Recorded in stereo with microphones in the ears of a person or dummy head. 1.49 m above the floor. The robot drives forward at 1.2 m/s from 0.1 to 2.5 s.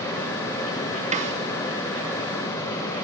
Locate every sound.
1.1 s a snare drum: 40° right (ahead or behind), 2.5 m; by 1.4 s 35° right (ahead or behind), 3 m